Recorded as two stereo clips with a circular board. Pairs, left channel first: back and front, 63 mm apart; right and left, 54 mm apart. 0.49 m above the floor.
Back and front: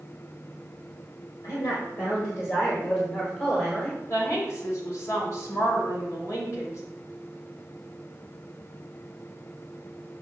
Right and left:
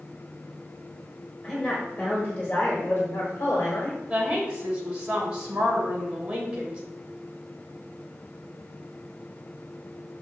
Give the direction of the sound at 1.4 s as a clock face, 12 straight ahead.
6 o'clock.